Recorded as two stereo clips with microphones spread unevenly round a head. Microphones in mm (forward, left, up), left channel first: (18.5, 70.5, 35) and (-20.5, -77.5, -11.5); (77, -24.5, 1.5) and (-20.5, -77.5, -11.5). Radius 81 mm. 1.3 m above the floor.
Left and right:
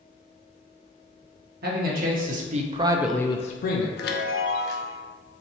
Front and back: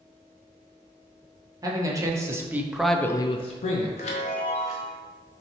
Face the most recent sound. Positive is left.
turn(degrees=65)